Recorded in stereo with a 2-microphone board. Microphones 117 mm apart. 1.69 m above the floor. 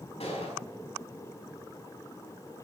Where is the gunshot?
60° left (ahead or behind), 5 m.